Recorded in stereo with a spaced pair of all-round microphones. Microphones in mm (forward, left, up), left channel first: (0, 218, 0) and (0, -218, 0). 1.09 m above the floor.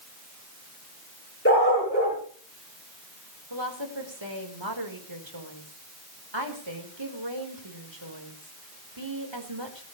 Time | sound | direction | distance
1.4 | a dog barking | 30° left (ahead or behind) | 10 m
3.5 | a woman speaking | 80° right | 4 m